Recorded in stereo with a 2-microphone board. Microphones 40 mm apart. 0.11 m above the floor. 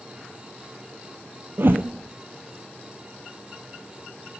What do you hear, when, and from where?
1.6 s a whoosh: 55° right (ahead or behind), 1.3 m